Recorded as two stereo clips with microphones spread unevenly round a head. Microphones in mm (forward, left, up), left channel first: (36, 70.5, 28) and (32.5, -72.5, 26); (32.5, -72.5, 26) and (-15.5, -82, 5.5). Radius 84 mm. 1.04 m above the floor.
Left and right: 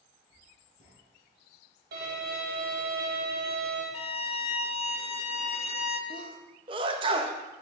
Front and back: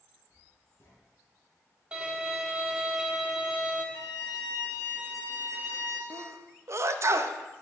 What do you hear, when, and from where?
0.3 s writing: 50° left, 4.5 m
1.9 s a violin: 105° right, 2.5 m
3.9 s a violin: 40° left, 0.8 m
6.1 s a sneeze: 150° right, 0.8 m